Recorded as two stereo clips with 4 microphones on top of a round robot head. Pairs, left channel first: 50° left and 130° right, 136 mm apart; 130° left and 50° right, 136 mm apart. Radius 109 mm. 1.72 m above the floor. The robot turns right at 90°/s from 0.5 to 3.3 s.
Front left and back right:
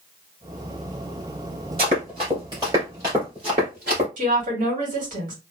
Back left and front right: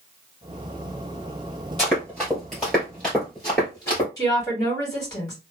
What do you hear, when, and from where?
1.8 s running footsteps: 170° right, 1.9 m; by 4.1 s 165° right, 2 m
4.2 s a woman speaking: 160° right, 1.9 m